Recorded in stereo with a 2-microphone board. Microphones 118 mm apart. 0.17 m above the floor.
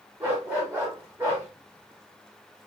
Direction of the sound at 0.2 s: 20° right (ahead or behind).